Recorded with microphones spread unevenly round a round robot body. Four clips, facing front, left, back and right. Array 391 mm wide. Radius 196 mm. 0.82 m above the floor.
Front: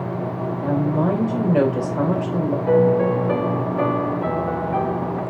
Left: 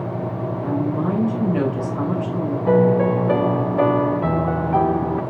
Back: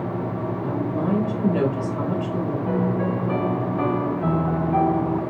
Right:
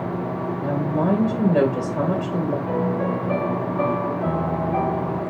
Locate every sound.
0.6 s a woman speaking: 40° right, 3.5 m
2.7 s a piano: 100° left, 0.7 m